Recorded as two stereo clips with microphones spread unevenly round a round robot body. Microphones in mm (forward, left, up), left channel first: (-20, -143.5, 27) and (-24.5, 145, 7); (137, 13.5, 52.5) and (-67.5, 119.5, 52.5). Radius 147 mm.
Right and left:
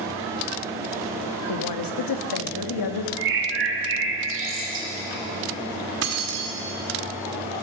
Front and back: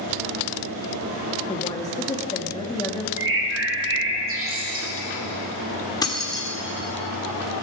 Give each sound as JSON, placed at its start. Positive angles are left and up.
{"t": 1.5, "sound": "a woman speaking", "azimuth_deg": -105, "distance_m": 1.3}
{"t": 3.2, "sound": "a bird", "azimuth_deg": 135, "distance_m": 2.0}
{"t": 6.0, "sound": "keys jangling", "azimuth_deg": 45, "distance_m": 1.7}